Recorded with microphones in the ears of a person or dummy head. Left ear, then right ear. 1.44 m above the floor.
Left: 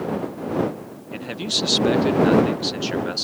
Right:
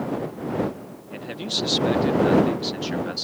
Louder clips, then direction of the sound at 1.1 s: Left 3 dB; 5° left (ahead or behind).